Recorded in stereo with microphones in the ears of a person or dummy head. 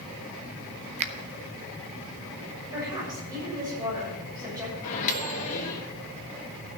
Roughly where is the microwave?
Left.